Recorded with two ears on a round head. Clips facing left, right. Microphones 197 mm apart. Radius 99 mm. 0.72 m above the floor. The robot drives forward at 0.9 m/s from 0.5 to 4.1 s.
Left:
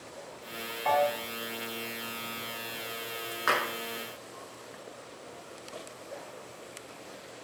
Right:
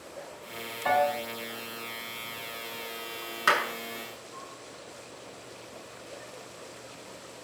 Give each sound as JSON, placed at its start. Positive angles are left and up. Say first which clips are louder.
{"t": 0.8, "sound": "a piano", "louder": "right 1 dB", "side_deg": -45, "distance_m": 2.5}
{"t": 3.5, "sound": "a clap", "louder": "right 2 dB", "side_deg": -40, "distance_m": 6.0}